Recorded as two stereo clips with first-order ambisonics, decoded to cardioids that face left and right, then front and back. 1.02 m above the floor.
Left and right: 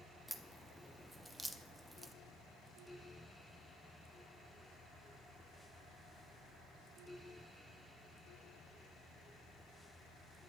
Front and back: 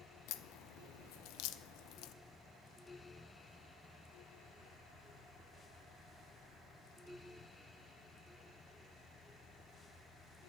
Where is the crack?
Straight ahead, 0.7 m.